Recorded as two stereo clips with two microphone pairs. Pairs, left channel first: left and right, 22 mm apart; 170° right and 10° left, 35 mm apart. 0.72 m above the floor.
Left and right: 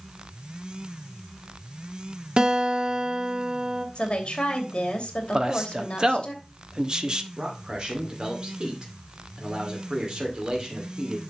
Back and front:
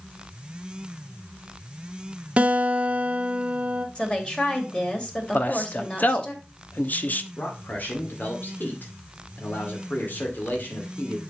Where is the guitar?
50° right, 2.5 m.